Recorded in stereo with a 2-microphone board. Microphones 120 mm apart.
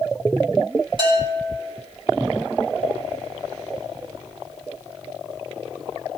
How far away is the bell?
About 3.5 m.